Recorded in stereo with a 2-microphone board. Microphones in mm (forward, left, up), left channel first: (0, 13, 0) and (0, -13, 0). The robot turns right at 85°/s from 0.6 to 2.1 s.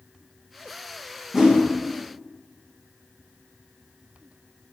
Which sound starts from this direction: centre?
A whoosh, at 1.3 s.